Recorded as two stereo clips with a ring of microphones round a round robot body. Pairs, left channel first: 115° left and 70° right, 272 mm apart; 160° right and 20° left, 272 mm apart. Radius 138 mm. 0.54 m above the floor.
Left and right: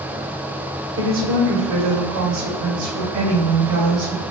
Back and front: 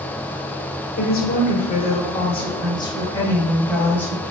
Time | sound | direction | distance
1.0 | a woman speaking | 110° right | 2 m